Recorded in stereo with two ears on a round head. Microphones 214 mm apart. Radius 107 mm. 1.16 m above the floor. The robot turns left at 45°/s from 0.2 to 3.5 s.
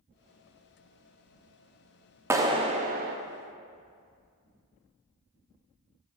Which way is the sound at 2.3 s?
10° right.